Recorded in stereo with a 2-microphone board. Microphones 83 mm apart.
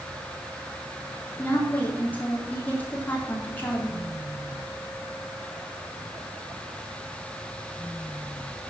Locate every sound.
1.4 s a woman speaking: 20° left (ahead or behind), 3 m